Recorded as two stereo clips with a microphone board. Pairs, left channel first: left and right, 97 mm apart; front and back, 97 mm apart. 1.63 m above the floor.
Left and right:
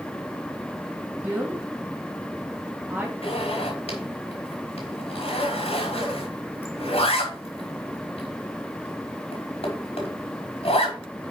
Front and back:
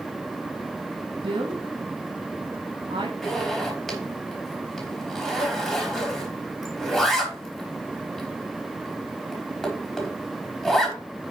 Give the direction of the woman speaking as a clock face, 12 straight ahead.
5 o'clock.